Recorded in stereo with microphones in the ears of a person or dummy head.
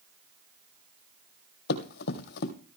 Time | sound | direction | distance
1.7 | running footsteps | 60° left (ahead or behind) | 2.5 m